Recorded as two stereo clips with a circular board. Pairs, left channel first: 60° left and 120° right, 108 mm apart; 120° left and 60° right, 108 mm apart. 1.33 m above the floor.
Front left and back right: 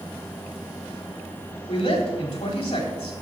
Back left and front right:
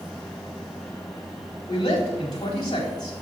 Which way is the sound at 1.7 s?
70° left.